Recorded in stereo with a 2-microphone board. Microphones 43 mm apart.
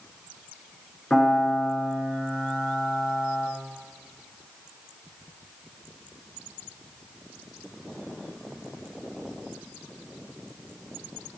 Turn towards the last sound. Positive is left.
turn(degrees=20)  # may be behind; listen again after turning